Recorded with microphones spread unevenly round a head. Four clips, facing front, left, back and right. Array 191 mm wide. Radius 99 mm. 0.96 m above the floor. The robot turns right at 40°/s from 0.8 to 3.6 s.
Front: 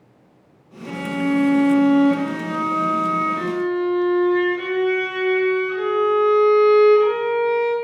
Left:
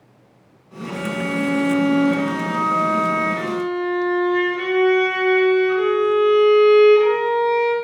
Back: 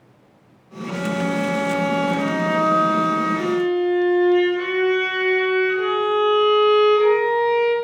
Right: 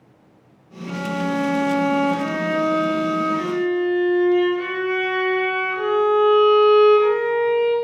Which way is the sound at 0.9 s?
10° right.